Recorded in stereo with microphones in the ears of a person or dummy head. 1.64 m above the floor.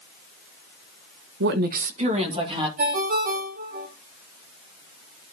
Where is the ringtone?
45° right (ahead or behind), 1.0 m.